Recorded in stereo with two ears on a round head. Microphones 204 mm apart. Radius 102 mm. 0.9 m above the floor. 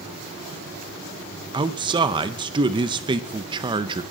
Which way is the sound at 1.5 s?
20° right (ahead or behind).